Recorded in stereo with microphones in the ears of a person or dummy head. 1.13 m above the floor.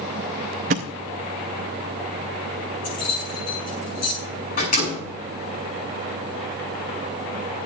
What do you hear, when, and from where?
0.7 s a thud: 40° right (ahead or behind), 0.5 m
2.8 s keys jangling: 35° left (ahead or behind), 9 m
4.6 s a door slam: 35° left (ahead or behind), 8.5 m